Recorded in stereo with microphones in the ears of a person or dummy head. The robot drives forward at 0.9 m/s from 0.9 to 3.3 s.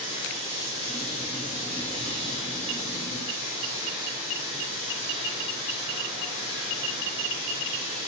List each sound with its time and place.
0.0 s running water: 50° right (ahead or behind), 3 m; by 8.1 s 30° right (ahead or behind), 5 m